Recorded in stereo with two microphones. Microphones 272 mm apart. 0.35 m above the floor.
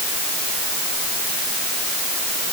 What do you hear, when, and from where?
Only background noise.